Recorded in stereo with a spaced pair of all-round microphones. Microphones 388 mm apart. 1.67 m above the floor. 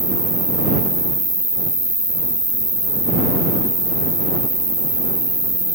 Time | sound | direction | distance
0.0 | an insect | 50° right (ahead or behind) | ?